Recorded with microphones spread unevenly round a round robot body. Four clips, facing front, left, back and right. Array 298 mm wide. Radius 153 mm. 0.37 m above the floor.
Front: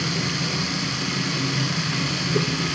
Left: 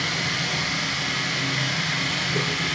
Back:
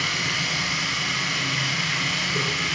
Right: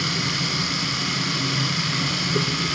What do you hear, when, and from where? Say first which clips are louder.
0.0 s running water: right 1 dB, front 2 dB; 35° right, 1.3 m